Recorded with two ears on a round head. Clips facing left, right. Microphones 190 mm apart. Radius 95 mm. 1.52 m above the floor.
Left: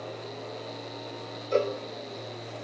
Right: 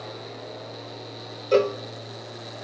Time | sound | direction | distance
1.5 | a cowbell | 70° right (ahead or behind) | 0.7 m